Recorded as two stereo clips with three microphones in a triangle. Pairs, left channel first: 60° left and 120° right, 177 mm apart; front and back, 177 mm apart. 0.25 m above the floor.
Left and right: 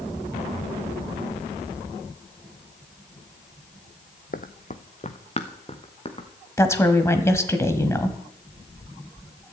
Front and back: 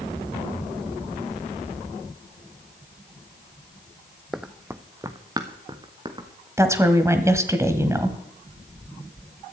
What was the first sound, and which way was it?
Running footsteps, 90° left.